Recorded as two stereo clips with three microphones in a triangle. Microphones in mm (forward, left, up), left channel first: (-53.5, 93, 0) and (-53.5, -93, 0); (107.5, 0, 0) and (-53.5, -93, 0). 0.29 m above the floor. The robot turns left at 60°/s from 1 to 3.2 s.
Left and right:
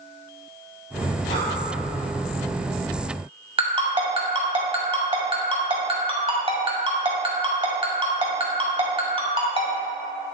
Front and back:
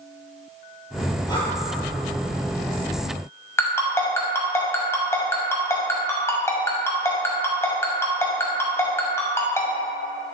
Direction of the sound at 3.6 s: 40° right.